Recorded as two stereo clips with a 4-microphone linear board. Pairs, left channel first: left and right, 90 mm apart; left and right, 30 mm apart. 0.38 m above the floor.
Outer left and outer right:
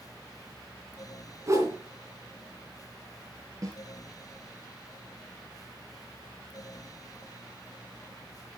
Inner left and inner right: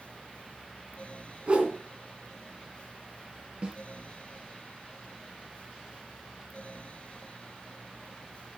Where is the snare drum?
40° right (ahead or behind), 3 m.